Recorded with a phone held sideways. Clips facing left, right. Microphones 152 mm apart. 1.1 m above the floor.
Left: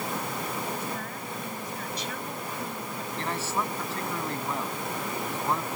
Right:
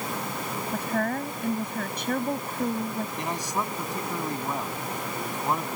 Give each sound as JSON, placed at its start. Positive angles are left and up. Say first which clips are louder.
{"t": 0.7, "sound": "a woman speaking", "louder": "right 7 dB", "side_deg": -65}
{"t": 3.2, "sound": "a man speaking", "louder": "left 3 dB", "side_deg": -15}